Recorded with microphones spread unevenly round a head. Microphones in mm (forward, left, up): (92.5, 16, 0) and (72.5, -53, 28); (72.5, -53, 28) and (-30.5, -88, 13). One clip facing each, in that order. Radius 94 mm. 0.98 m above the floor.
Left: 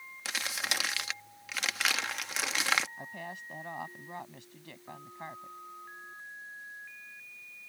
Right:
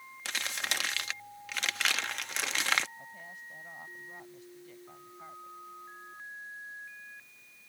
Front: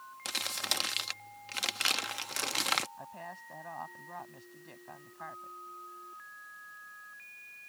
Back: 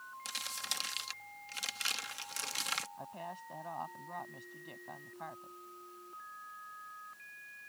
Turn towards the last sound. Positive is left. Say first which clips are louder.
# left 5 dB, back 1 dB
turn(degrees=115)